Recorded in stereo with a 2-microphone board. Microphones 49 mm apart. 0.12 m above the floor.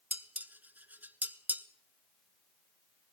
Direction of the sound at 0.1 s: 40° right (ahead or behind).